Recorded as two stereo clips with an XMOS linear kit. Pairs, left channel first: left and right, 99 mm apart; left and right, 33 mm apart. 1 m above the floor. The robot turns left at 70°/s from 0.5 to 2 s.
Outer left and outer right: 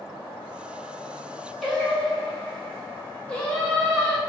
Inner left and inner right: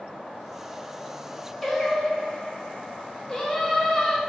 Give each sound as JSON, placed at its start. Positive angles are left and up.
{"t": 1.6, "sound": "singing", "side_deg": 0, "distance_m": 0.6}